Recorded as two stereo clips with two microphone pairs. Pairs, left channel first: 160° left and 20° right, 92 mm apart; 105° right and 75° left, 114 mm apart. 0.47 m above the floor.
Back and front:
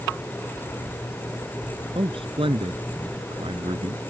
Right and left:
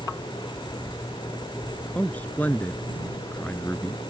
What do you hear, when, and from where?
1.9 s a man speaking: 25° right